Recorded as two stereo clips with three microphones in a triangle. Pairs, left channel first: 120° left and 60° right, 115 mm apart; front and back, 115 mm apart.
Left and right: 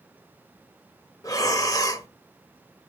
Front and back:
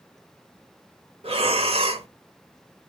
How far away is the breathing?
About 1.0 m.